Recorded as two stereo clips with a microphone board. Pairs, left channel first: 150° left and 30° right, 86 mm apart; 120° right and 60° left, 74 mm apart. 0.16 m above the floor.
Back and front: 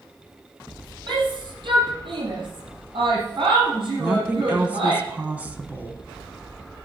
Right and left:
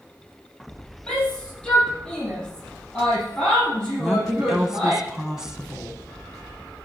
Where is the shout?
40° right, 4.5 m; by 5.0 s 15° right, 4 m.